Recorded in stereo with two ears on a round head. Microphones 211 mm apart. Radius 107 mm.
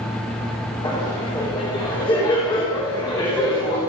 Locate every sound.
0.8 s laughter: 20° left (ahead or behind), 3.5 m